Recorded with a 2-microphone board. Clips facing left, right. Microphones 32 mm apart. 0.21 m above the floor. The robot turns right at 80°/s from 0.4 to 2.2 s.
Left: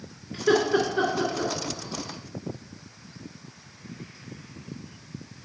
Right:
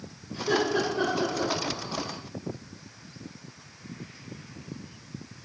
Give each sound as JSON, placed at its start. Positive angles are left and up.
{"t": 0.3, "sound": "laughter", "side_deg": 65, "distance_m": 2.5}